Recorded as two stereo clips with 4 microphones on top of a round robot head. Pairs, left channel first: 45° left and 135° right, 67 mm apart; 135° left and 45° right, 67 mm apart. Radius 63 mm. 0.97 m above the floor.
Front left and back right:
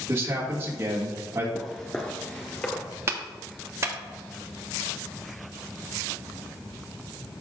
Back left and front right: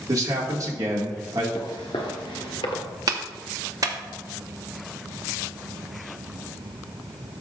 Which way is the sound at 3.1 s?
80° right.